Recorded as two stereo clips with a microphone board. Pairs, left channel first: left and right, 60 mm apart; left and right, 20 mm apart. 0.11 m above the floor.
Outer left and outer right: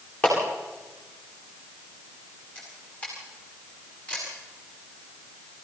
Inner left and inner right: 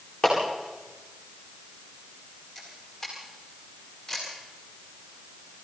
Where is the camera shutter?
20° left (ahead or behind), 8.5 m.